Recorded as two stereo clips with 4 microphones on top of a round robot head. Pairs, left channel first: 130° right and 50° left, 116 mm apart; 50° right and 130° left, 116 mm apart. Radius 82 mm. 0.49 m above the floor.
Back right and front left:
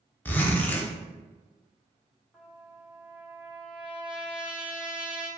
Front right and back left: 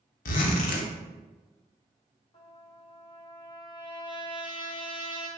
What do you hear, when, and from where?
0.2 s a zipper: 50° right, 0.6 m
2.3 s a trumpet: 25° right, 1.3 m